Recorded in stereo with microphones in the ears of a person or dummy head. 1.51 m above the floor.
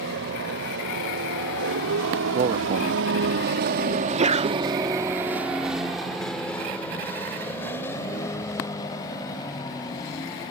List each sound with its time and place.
0.0 s a vehicle: 65° right (ahead or behind); by 10.5 s 25° left (ahead or behind)
2.3 s a man speaking: 30° right (ahead or behind)
3.9 s a sneeze: 35° right (ahead or behind)